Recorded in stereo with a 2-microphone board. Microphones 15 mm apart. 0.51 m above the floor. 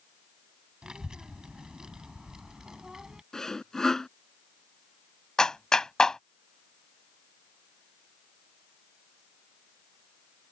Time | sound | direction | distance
0.8 | a child speaking | 70° right (ahead or behind) | ?
3.3 | sawing | 40° left (ahead or behind) | ?
5.4 | a clap | 55° left (ahead or behind) | ?